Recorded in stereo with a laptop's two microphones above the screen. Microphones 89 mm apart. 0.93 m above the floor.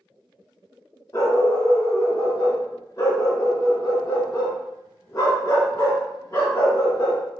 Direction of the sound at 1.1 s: 35° left (ahead or behind).